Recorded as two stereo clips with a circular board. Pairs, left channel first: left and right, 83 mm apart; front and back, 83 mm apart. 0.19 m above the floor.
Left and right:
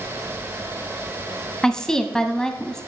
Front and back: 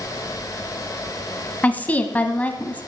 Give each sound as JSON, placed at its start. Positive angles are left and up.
{"t": 1.6, "sound": "a woman speaking", "azimuth_deg": 25, "distance_m": 1.0}